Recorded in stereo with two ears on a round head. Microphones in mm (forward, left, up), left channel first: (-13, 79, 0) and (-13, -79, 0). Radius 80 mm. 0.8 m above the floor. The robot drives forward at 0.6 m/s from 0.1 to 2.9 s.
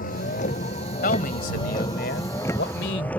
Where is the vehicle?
50° left (ahead or behind); by 3.2 s 5° left (ahead or behind).